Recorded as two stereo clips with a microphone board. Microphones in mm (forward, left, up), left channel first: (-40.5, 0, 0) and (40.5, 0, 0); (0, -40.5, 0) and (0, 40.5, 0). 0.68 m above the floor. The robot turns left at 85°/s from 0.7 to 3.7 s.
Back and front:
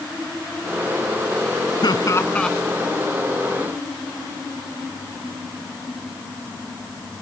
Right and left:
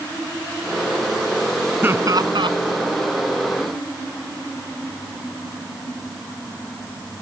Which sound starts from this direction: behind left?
Laughter, at 1.8 s.